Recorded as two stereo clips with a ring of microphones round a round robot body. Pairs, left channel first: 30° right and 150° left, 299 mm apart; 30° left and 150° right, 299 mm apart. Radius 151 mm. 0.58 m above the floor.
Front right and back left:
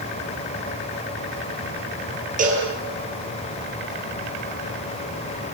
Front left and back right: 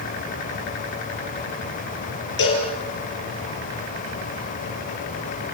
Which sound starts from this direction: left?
A cowbell, at 2.4 s.